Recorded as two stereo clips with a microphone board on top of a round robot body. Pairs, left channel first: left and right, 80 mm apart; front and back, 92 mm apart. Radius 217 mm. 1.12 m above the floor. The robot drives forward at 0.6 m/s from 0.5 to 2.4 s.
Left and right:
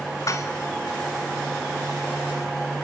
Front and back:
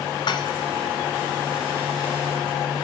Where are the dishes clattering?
40° left, 0.8 m.